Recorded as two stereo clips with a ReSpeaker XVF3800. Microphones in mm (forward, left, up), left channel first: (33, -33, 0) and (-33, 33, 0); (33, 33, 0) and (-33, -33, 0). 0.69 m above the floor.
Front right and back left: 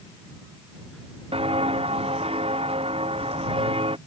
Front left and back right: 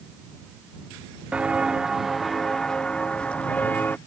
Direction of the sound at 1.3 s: 145° left.